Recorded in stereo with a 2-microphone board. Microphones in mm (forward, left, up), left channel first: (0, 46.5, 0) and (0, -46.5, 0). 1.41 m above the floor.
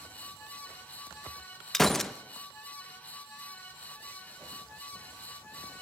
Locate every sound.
1.7 s a gunshot: 5° left (ahead or behind), 0.9 m